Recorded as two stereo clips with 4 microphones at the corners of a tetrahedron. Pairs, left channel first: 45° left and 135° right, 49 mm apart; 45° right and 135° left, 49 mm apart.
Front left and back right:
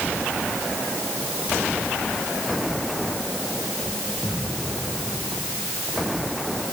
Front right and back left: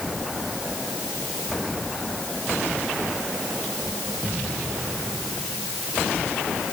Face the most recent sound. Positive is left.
No sound to turn to.